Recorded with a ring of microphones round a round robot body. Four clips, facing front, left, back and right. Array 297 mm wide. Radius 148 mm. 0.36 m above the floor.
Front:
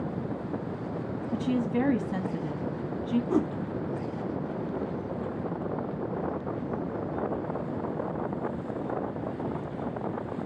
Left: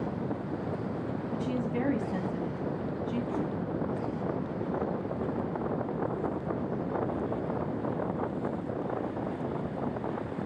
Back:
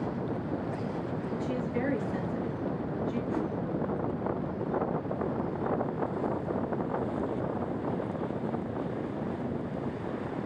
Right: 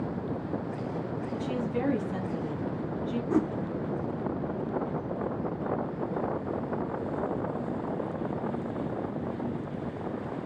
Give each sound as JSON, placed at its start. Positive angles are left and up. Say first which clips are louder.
{"t": 1.3, "sound": "a woman speaking", "louder": "even, front 6 dB", "azimuth_deg": 0, "distance_m": 2.5}
{"t": 3.3, "sound": "a whoosh", "louder": "right 6 dB, front 5 dB", "azimuth_deg": -40, "distance_m": 1.1}